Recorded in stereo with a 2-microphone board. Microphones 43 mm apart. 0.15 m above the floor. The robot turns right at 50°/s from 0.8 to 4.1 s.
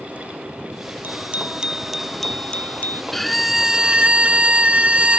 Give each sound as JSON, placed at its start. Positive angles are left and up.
{"t": 1.0, "sound": "a bicycle bell", "azimuth_deg": -50}
{"t": 3.1, "sound": "a violin", "azimuth_deg": 170}